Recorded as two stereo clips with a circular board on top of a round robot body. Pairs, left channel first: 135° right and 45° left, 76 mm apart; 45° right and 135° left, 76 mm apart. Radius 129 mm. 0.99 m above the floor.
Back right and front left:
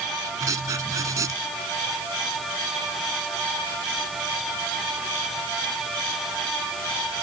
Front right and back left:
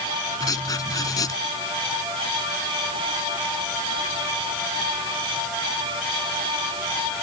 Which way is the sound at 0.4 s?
5° right.